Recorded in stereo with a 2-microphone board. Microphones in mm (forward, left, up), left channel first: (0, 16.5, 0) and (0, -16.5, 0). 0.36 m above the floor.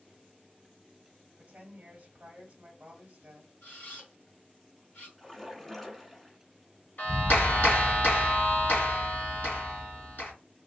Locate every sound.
1.4 s a woman speaking: 40° right (ahead or behind), 1.2 m
3.6 s a camera shutter: 55° left (ahead or behind), 2.5 m
5.2 s a splash: 10° left (ahead or behind), 1.1 m
7.0 s a clap: 60° left (ahead or behind), 2.0 m